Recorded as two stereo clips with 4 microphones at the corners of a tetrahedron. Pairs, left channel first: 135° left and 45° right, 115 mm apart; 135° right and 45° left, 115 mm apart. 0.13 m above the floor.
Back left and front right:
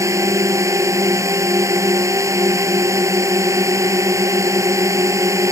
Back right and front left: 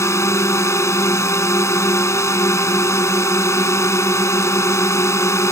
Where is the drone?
90° right.